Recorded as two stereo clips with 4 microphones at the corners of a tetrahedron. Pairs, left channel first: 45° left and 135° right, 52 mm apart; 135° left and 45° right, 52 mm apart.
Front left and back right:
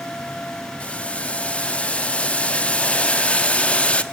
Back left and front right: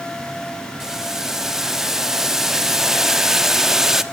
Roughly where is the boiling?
Ahead.